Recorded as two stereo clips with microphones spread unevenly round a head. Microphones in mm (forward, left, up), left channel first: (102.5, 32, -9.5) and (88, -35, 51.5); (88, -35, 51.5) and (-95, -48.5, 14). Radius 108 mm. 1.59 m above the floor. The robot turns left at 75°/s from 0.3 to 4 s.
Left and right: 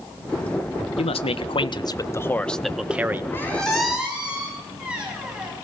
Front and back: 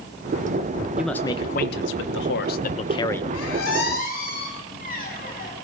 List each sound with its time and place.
1.0 s a man speaking: 95° left, 1.1 m; by 3.2 s 75° right, 1.1 m
3.3 s a squeak: 15° left, 7.5 m; by 5.5 s 35° right, 7.5 m